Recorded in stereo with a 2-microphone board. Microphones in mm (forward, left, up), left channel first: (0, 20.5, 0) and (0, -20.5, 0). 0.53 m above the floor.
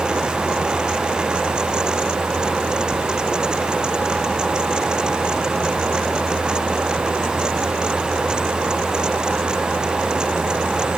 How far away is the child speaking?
I don't hear a child speaking.